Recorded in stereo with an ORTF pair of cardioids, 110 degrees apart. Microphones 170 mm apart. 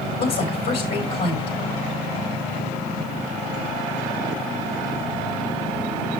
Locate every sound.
0.2 s a woman speaking: 60° left, 3.5 m